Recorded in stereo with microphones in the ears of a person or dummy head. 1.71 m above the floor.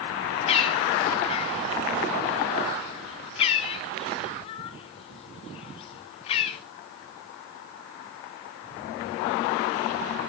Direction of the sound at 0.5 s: 35° left (ahead or behind).